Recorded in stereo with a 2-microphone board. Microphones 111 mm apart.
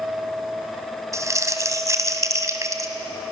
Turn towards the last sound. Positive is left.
turn(degrees=-30)  # may be behind; listen again after turning